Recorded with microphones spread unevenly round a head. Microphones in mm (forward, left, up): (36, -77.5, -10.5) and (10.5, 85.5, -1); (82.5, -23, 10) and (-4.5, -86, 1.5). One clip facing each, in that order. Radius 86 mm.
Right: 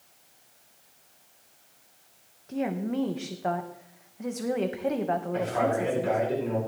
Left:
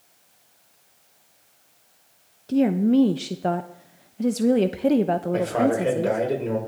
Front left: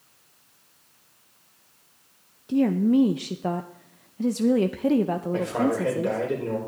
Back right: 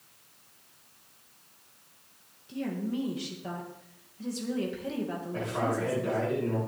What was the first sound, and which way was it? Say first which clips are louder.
A woman speaking: left 11 dB, front left 13 dB; 60° left.